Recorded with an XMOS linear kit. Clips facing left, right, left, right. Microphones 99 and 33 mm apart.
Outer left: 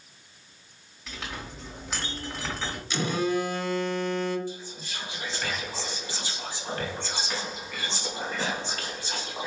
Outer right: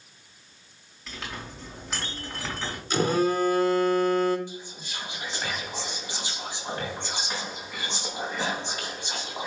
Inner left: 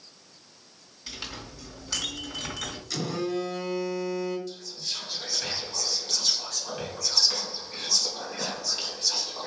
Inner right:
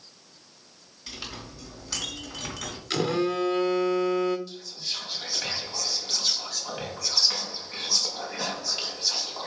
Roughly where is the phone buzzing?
Right.